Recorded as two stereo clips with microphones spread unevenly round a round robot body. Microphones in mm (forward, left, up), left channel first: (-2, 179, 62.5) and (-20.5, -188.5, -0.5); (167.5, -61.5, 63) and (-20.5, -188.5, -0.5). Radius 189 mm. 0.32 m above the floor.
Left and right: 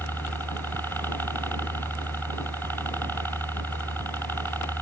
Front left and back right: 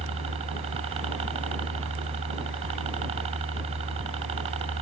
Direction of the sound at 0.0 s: Straight behind.